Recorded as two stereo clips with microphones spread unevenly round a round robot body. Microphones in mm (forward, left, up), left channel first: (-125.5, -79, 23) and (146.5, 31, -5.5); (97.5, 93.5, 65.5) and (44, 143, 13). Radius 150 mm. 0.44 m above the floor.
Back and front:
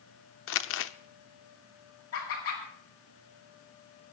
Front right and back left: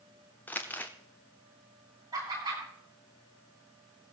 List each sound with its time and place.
0.5 s crumpling: 155° right, 0.7 m
2.1 s laughter: 155° left, 8.5 m